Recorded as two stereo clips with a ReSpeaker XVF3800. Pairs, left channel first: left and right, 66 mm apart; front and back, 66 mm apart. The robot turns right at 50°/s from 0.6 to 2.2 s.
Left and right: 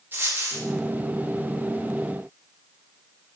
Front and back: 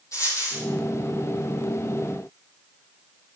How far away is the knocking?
No knocking in this recording.